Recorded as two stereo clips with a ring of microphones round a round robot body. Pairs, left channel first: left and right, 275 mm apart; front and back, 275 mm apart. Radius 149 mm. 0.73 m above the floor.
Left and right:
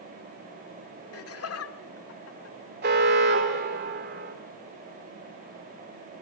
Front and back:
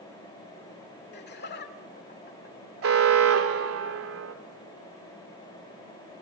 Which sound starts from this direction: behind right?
An alarm, at 2.8 s.